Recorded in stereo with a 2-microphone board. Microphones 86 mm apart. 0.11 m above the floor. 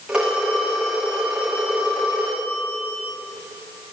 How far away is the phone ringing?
About 5.5 m.